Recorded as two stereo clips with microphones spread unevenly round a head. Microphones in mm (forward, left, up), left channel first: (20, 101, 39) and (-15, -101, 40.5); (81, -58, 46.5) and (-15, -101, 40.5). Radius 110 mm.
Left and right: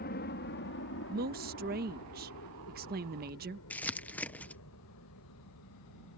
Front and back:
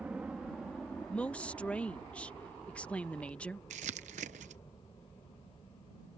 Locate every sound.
0.0 s a helicopter: 120° left; by 6.2 s 90° left
1.1 s a woman speaking: 55° right
3.7 s crumpling: 165° left